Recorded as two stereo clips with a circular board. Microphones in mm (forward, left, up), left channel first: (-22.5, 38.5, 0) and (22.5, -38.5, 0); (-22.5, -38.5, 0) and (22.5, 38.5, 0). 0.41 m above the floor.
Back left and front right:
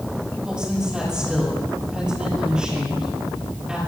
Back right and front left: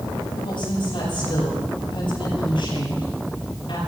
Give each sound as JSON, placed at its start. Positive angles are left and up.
{"t": 0.4, "sound": "a woman speaking", "azimuth_deg": -140, "distance_m": 8.0}